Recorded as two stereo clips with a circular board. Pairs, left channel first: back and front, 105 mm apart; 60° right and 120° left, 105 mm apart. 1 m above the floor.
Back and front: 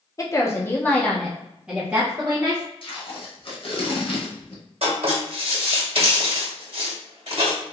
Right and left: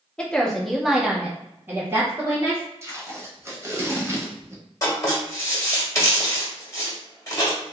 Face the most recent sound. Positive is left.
turn(degrees=-5)